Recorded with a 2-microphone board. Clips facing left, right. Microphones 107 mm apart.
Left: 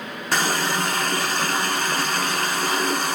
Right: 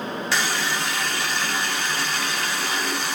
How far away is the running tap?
About 0.7 m.